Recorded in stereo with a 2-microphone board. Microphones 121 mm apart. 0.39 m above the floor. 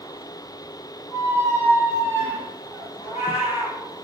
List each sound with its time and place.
1.1 s a squeak: 25° right (ahead or behind), 0.5 m
3.0 s a cat meowing: 75° left (ahead or behind), 1.9 m